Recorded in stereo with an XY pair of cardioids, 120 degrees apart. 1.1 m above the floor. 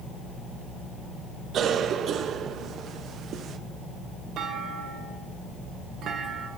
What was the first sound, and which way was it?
A cough, 55° right.